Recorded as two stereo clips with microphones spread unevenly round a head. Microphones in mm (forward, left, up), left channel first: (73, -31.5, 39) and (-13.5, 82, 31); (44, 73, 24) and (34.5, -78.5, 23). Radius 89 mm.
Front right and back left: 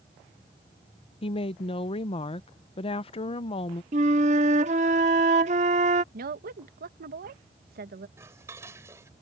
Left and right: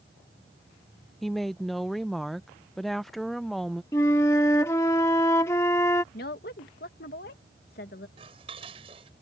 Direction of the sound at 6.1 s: 120° left.